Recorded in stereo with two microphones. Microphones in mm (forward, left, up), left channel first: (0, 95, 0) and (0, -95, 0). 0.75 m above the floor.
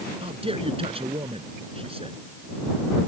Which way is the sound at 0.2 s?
30° right (ahead or behind).